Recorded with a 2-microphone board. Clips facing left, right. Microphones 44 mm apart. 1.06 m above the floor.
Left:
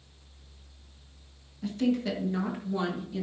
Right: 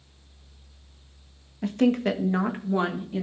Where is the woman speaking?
60° right (ahead or behind), 1.1 m; by 3.2 s 30° right (ahead or behind), 1.7 m.